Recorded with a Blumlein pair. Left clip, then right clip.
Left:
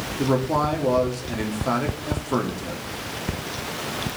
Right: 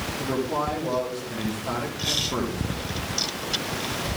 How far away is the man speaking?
About 3.5 m.